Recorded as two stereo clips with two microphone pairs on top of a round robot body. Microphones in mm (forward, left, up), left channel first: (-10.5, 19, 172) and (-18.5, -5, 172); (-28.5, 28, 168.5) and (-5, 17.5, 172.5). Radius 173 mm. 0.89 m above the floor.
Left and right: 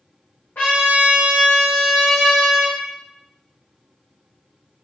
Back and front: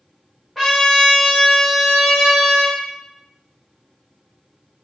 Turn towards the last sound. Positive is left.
turn(degrees=60)